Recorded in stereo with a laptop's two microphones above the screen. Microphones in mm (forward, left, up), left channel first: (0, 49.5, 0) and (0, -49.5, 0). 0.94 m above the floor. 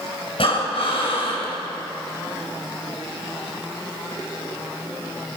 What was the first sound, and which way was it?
Breathing, 65° left (ahead or behind).